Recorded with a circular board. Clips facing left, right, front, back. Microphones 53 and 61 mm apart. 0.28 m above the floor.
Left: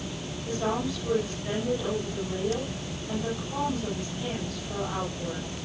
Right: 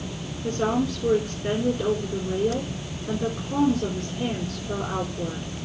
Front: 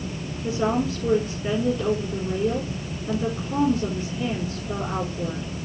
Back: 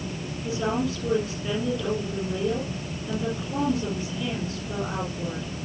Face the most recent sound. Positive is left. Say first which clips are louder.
# right 5 dB, front 3 dB
turn(degrees=-60)